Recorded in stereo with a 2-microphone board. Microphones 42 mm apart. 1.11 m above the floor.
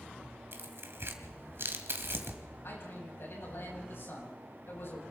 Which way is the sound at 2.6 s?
65° left (ahead or behind).